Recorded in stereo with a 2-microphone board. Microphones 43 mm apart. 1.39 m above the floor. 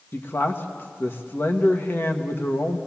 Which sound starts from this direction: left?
A man speaking, at 0.1 s.